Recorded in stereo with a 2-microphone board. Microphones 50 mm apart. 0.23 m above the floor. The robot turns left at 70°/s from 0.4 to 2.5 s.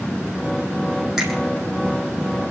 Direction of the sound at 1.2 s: 10° right (ahead or behind).